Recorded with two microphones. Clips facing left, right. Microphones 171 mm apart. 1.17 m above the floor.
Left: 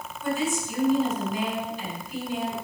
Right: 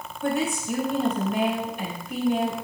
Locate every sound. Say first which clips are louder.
0.2 s a woman speaking: right 2 dB; 70° right (ahead or behind), 5.5 m